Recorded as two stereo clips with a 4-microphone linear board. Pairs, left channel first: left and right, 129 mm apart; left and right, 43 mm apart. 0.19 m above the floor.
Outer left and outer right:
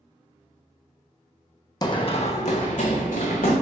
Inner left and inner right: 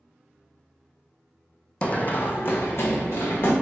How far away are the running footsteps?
About 0.5 m.